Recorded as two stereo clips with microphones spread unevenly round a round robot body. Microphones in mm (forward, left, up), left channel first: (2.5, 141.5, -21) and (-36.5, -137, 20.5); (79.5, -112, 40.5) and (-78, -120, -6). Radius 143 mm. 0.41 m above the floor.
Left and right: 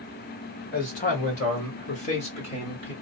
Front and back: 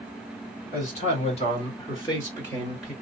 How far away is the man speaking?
About 1.7 m.